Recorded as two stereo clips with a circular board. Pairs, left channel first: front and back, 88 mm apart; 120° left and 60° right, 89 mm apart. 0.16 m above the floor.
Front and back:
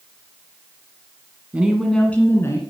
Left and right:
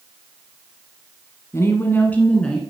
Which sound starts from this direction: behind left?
A woman speaking, at 1.5 s.